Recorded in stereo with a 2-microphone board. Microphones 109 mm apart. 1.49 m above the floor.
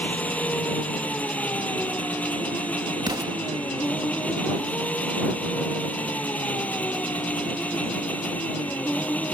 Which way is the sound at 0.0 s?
10° left (ahead or behind).